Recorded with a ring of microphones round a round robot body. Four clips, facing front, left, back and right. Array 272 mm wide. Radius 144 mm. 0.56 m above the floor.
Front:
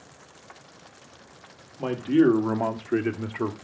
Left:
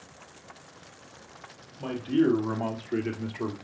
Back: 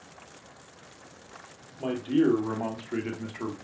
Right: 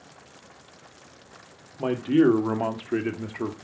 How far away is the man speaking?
About 2 m.